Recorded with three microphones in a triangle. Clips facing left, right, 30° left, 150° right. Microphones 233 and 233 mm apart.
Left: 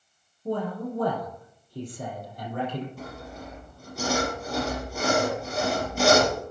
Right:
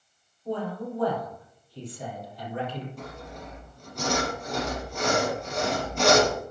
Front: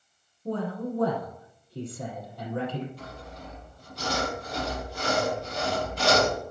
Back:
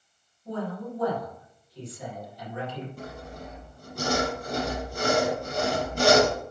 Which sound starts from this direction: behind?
Sawing, at 3.0 s.